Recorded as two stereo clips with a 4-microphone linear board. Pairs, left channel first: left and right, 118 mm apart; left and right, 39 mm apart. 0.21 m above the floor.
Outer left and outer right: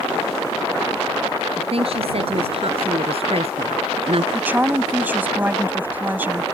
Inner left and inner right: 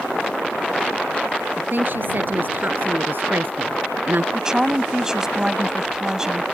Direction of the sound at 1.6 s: 55° right (ahead or behind).